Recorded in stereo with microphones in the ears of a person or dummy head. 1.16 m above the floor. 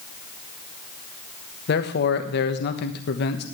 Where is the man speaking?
50° left (ahead or behind), 1.3 m.